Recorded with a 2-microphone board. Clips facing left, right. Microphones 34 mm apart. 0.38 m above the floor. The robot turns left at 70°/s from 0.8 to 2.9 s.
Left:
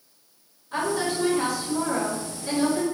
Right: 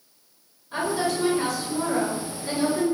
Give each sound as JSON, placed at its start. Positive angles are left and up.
{"t": 0.7, "sound": "a woman speaking", "azimuth_deg": 170, "distance_m": 1.6}